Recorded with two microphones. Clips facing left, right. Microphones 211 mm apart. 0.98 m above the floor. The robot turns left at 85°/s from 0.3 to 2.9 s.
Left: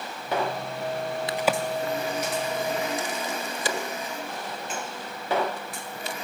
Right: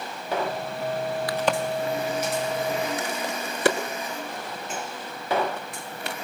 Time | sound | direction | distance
1.3 | a crack | 25° left (ahead or behind) | 1.5 m